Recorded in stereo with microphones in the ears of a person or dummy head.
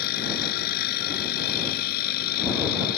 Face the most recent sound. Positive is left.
turn(degrees=55)  # may be behind; listen again after turning